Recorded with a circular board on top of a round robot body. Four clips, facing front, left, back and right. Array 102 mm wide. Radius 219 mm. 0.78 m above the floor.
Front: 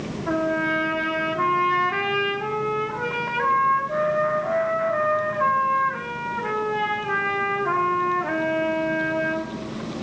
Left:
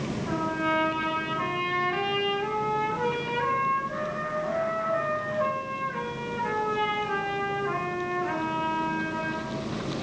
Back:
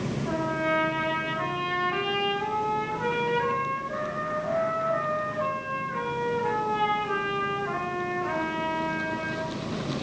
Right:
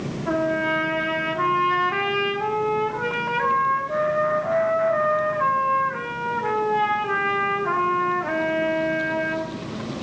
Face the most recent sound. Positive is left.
turn(degrees=-60)